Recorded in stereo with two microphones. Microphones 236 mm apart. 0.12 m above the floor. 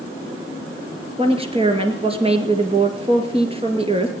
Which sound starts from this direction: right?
A woman speaking, at 1.2 s.